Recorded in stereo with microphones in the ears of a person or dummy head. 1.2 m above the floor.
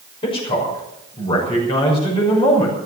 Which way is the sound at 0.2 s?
30° left (ahead or behind).